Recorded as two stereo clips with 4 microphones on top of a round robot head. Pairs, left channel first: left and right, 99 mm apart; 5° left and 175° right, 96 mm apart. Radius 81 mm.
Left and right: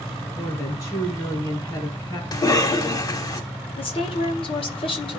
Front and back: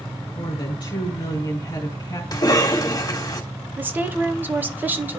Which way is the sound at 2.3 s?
50° left.